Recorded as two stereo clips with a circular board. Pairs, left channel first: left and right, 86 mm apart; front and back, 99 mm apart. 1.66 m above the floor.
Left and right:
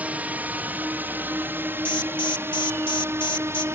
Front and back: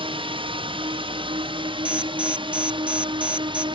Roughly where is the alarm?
Left.